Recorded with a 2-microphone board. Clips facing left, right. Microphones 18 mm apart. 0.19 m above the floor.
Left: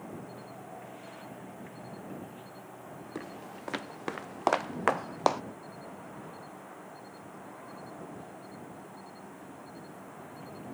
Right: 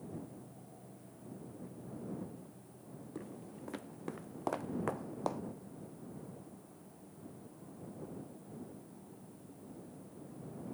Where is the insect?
70° left (ahead or behind).